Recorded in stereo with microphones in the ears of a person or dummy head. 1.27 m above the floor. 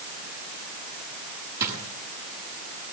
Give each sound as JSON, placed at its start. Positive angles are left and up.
{"t": 1.6, "sound": "a drawer", "side_deg": -15, "distance_m": 7.5}